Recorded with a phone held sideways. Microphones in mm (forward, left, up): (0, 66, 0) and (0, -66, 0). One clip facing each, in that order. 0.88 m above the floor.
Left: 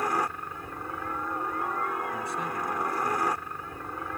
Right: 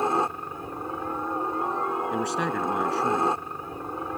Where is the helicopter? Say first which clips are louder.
Right 4 dB; 25° right (ahead or behind).